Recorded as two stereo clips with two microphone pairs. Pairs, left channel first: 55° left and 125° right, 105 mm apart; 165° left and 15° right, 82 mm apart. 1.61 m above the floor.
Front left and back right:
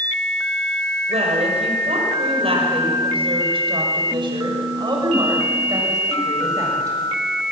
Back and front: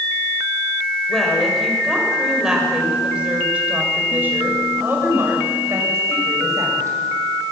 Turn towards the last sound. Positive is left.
turn(degrees=-65)